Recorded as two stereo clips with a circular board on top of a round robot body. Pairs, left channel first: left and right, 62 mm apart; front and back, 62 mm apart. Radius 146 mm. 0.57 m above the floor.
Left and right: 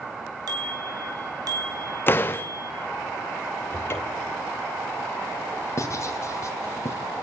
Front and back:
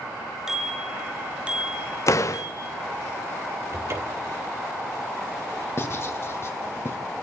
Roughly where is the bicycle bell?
Right.